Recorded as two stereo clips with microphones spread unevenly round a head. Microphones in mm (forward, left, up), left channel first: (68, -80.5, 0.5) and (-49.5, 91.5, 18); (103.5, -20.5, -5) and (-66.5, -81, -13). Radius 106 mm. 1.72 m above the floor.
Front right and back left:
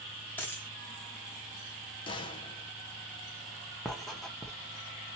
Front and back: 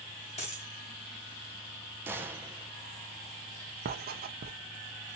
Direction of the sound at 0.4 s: 30° left.